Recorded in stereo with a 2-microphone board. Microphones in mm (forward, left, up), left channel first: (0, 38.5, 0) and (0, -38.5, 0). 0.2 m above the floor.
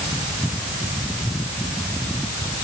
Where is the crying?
I don't hear crying.